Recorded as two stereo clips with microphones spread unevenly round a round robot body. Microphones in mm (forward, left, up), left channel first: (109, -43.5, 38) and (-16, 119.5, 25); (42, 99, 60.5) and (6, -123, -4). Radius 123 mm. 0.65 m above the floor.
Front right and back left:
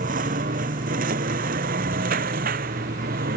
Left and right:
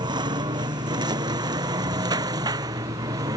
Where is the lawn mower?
175° right.